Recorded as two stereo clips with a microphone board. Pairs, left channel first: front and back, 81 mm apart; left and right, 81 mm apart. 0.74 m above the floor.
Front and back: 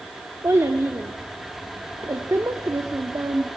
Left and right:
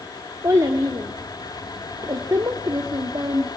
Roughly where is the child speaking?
Behind right.